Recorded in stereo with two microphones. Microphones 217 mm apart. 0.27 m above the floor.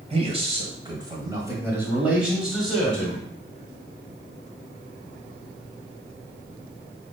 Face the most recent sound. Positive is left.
turn(degrees=5)  # may be behind; listen again after turning